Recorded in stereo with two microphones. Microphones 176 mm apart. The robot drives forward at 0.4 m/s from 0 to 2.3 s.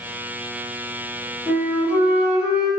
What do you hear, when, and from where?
1.5 s a flute: 10° right (ahead or behind), 1.1 m